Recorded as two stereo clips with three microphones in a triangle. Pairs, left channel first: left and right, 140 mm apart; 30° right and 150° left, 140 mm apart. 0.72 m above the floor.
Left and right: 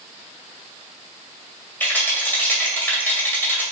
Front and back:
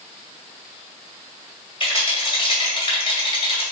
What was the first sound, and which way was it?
A rattle, 15° left.